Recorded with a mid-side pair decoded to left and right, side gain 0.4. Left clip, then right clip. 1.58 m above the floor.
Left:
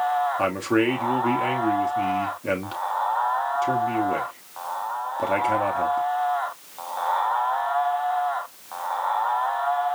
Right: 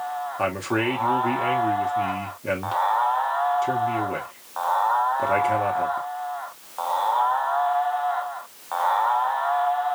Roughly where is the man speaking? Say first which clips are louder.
Left 2 dB; ahead.